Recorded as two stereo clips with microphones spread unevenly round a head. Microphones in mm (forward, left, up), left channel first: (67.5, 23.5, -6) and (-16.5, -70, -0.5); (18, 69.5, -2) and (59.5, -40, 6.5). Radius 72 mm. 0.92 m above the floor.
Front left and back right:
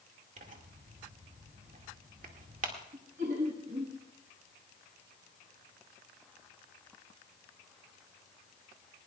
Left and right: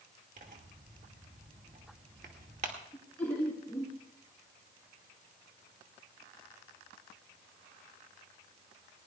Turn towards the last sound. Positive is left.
turn(degrees=-170)